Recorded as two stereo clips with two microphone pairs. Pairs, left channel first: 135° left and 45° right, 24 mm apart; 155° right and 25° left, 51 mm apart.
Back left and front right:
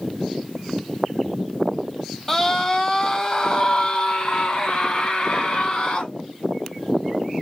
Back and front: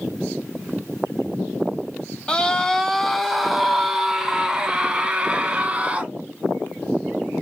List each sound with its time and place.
2.3 s a scream: 170° right, 1.3 m; by 6.1 s 90° left, 2.5 m